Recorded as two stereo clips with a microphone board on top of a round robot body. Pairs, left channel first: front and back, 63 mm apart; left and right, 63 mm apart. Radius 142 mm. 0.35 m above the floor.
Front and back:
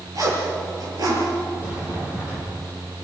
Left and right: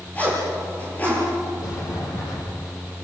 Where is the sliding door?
115° left, 6.5 m.